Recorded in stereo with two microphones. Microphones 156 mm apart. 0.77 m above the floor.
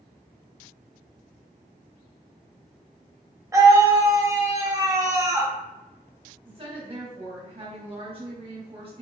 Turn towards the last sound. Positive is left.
turn(degrees=-35)  # may be behind; listen again after turning